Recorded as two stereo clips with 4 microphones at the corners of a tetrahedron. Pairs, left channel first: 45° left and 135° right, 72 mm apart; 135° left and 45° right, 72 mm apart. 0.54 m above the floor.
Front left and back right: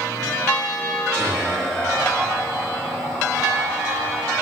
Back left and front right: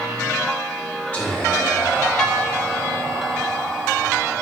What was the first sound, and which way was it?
Whispering, 105° left.